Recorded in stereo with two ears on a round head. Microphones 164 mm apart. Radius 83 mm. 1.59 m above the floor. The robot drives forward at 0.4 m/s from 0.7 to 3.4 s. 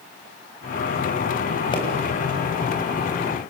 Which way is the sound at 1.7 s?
30° left (ahead or behind).